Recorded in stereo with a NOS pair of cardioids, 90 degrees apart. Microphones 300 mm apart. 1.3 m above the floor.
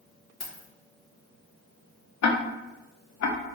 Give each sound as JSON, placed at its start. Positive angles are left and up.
{"t": 0.4, "sound": "keys jangling", "azimuth_deg": 30, "distance_m": 1.2}
{"t": 2.2, "sound": "ticking", "azimuth_deg": 60, "distance_m": 0.6}